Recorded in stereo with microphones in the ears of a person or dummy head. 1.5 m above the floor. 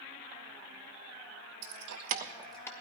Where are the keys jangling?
75° right (ahead or behind), 1.1 m; by 2.7 s 15° left (ahead or behind), 1.0 m.